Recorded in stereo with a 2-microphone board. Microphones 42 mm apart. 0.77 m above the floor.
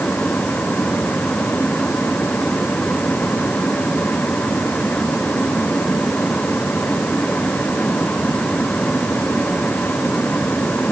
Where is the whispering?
No whispering in this recording.